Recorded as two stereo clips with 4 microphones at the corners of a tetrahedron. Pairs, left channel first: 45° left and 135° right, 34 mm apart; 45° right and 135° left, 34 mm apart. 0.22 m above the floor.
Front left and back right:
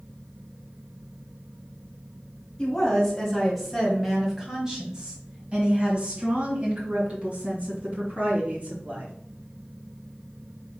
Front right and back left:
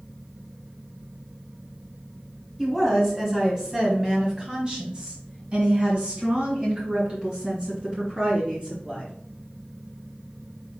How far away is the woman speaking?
About 1.6 m.